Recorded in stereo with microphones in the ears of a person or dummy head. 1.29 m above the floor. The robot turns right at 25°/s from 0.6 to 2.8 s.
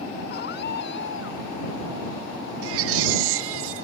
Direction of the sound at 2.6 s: 80° right.